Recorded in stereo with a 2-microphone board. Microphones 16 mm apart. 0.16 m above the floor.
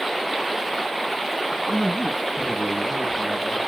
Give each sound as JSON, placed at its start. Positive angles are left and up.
{"t": 1.7, "sound": "a man speaking", "side_deg": -25, "distance_m": 1.6}